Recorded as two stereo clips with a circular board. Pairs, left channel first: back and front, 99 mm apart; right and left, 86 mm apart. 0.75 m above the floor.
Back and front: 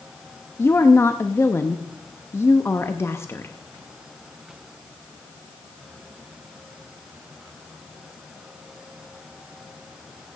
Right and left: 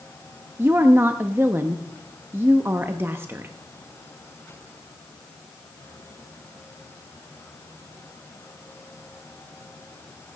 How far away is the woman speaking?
About 0.6 m.